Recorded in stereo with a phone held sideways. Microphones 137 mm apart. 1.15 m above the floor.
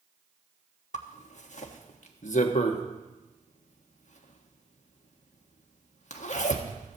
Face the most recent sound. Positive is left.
turn(degrees=60)  # may be behind; listen again after turning